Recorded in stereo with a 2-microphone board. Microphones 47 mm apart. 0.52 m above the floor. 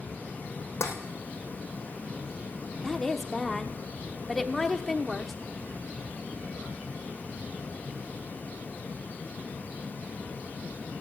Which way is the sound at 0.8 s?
60° left (ahead or behind).